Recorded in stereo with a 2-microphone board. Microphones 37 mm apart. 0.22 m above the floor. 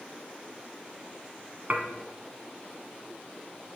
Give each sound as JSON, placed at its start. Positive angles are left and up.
{"t": 1.7, "sound": "dishes clattering", "side_deg": -45, "distance_m": 1.0}